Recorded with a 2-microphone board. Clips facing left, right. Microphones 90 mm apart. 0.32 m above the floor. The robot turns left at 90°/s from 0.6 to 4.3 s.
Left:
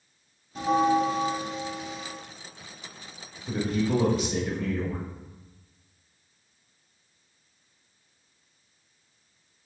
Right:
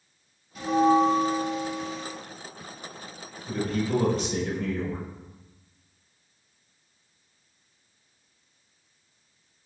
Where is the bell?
135° left, 0.8 m; by 2.1 s 5° right, 0.8 m.